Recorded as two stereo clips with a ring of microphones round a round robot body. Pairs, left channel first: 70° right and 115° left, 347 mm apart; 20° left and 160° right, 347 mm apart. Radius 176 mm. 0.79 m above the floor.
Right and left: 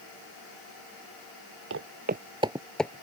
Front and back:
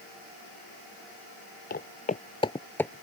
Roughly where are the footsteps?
Left.